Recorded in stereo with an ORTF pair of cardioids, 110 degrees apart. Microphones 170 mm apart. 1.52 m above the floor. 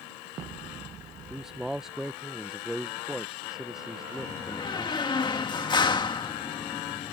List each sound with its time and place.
1.3 s a man speaking: 5° right
4.2 s a door slam: 25° left